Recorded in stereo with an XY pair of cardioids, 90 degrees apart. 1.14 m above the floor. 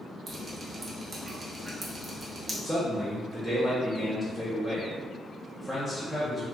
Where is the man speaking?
5° left, 0.8 m.